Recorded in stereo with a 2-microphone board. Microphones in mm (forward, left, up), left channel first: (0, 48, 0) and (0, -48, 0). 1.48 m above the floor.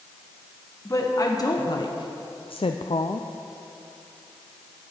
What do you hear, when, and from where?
0.8 s a woman speaking: 35° left (ahead or behind), 1.5 m; by 3.3 s 40° left (ahead or behind), 0.6 m